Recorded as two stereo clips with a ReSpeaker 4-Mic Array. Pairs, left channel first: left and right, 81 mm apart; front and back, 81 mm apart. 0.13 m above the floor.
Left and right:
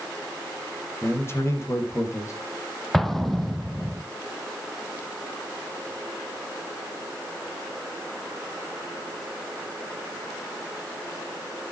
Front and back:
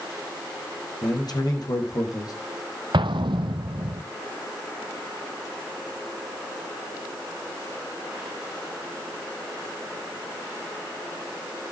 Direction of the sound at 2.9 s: 175° left.